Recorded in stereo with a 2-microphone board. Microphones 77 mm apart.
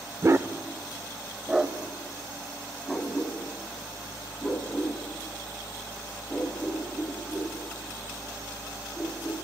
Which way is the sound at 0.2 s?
45° right (ahead or behind).